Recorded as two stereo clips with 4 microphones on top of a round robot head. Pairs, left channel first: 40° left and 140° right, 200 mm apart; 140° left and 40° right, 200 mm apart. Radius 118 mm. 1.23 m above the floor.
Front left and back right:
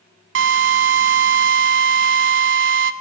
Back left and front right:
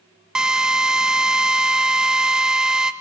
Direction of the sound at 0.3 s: 125° right.